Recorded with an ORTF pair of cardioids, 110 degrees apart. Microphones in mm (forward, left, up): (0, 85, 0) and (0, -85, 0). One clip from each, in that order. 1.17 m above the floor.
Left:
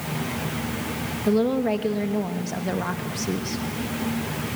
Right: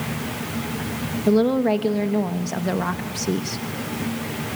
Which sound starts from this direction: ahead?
A woman speaking, at 1.3 s.